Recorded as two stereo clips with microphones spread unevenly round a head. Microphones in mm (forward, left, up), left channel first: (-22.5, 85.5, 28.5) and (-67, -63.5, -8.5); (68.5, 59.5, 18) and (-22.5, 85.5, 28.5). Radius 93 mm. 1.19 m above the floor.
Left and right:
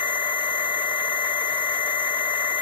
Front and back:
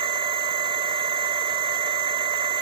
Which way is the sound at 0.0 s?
135° left.